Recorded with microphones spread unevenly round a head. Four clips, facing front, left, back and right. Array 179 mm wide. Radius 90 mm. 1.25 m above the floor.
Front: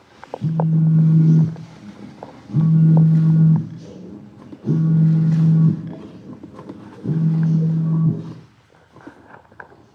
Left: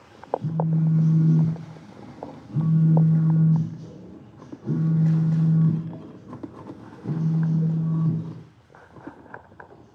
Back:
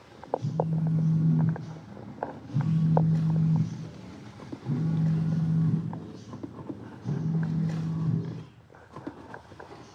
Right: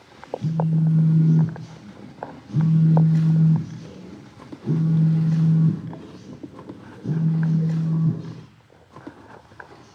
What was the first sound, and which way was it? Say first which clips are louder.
A phone buzzing: right 4 dB, front 13 dB; 10° right.